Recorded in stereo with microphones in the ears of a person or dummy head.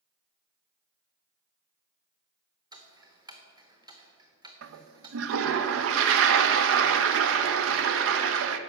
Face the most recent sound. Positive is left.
turn(degrees=-70)  # may be behind; listen again after turning